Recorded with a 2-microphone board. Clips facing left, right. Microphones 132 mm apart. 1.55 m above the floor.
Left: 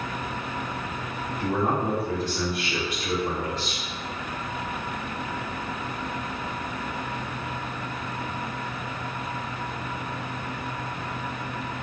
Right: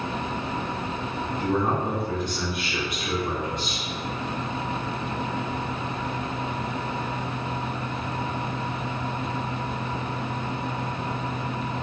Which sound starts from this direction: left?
A man speaking, at 1.4 s.